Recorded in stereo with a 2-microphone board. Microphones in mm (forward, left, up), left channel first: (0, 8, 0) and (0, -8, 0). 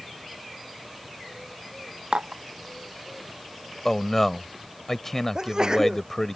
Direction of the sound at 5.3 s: 50° right (ahead or behind).